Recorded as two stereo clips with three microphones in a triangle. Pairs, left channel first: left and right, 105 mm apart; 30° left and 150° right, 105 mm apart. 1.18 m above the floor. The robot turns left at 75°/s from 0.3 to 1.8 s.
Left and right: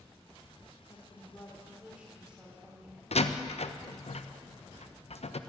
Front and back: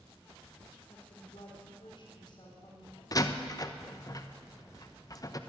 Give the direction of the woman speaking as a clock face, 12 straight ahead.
10 o'clock.